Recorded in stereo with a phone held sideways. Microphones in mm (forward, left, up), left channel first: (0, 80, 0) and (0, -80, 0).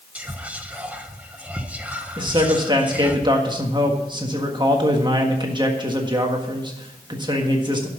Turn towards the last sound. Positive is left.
turn(degrees=-30)  # may be behind; listen again after turning